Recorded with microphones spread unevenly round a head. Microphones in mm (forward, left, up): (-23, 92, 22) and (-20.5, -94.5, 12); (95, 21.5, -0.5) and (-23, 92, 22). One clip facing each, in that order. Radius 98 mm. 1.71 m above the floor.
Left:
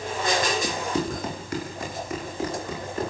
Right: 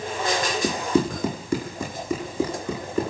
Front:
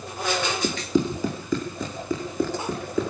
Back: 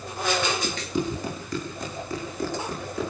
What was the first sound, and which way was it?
Running footsteps, 80° right.